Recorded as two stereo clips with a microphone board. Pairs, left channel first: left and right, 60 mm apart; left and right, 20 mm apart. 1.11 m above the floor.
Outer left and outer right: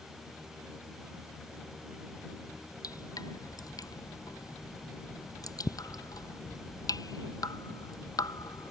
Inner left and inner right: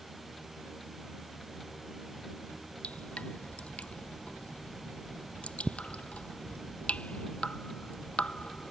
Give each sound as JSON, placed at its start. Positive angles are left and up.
{"t": 2.8, "sound": "dripping", "side_deg": 85}